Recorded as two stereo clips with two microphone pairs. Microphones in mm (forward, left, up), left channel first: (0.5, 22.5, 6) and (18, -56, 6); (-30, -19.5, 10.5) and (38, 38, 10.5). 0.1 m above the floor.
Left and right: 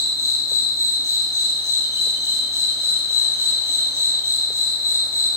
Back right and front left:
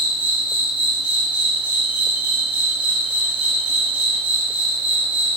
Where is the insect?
30° right, 3 m.